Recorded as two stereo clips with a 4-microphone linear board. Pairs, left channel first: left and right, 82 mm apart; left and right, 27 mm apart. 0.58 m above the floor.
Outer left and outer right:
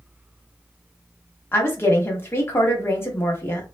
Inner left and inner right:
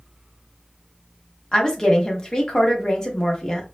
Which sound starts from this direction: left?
A woman speaking, at 1.5 s.